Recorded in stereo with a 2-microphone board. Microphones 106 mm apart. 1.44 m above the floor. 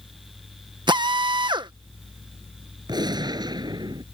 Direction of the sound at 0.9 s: 45° right (ahead or behind).